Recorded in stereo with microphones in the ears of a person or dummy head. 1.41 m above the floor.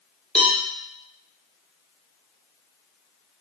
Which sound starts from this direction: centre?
A cowbell, at 0.3 s.